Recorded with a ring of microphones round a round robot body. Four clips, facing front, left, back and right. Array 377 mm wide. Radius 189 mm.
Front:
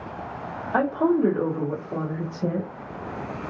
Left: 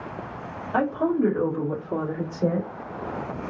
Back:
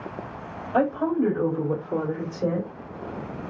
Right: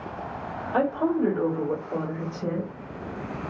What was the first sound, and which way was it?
A woman speaking, 35° left.